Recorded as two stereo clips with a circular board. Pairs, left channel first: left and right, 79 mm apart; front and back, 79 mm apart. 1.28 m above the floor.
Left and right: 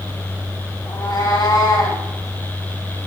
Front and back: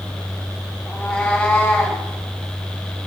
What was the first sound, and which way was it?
A cat meowing, 70° left.